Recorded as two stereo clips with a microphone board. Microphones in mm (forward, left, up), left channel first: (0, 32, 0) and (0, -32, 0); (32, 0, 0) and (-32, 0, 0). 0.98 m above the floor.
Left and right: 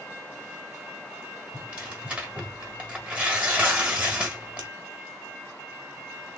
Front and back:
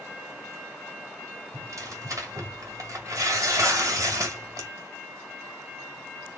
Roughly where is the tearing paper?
Behind right.